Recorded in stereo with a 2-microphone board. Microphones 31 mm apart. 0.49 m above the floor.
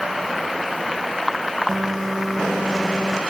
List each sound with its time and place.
1.7 s a phone buzzing: 5° right (ahead or behind)